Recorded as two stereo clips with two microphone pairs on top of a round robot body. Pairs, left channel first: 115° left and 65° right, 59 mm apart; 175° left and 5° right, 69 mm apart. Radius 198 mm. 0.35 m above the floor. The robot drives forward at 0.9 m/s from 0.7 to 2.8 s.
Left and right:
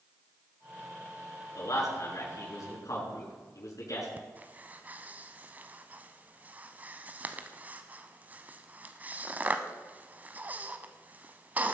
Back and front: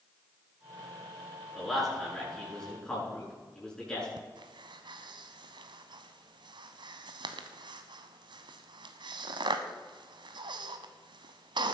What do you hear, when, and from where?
1.6 s a man speaking: 85° left, 6 m; by 4.1 s 95° left, 6 m
4.2 s breathing: 5° right, 0.6 m